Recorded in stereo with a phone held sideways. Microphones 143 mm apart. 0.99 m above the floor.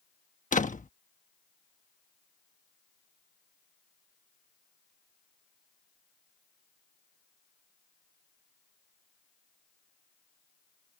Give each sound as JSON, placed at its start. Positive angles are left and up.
{"t": 0.5, "sound": "a door slam", "side_deg": 60}